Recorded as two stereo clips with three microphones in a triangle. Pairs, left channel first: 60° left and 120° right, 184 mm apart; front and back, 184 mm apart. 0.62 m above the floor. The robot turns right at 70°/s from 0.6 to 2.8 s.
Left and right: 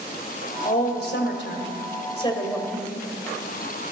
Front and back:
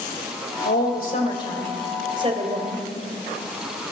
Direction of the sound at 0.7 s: 10° left.